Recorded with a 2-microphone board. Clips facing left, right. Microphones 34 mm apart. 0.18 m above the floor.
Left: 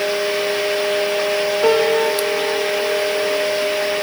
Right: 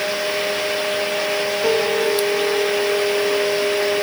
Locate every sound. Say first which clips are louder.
1.6 s a piano: left 4 dB; 80° left, 3.5 m